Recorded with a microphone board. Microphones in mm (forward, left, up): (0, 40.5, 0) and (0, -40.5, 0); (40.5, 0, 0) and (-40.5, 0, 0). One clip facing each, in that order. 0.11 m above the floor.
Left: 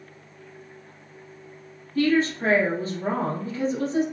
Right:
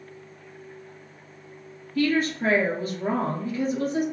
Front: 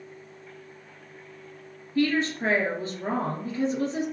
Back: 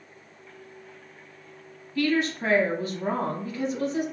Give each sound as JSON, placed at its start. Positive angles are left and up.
{"t": 1.9, "sound": "a woman speaking", "azimuth_deg": 50, "distance_m": 1.5}